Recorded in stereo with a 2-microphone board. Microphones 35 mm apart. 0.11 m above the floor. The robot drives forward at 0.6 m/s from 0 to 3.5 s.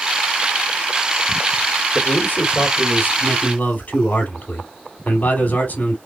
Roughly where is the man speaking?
Left.